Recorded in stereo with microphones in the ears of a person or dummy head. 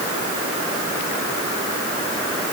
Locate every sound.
Only background noise.